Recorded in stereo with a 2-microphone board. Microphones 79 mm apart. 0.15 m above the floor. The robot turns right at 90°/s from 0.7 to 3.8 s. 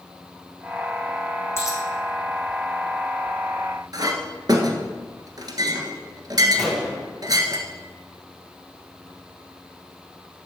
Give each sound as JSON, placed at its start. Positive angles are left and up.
{"t": 1.6, "sound": "a dropped coin", "side_deg": 30, "distance_m": 2.5}
{"t": 3.9, "sound": "a clink", "side_deg": -55, "distance_m": 1.4}
{"t": 6.6, "sound": "a gunshot", "side_deg": 0, "distance_m": 2.5}